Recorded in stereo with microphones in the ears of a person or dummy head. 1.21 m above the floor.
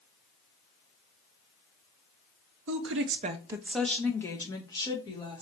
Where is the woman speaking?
65° right (ahead or behind), 0.6 m; by 5.4 s 25° left (ahead or behind), 2 m.